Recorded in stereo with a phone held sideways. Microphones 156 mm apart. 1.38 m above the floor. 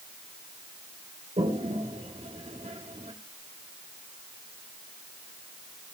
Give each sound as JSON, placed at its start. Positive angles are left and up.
{"t": 1.4, "sound": "a toilet flushing", "side_deg": -45, "distance_m": 3.0}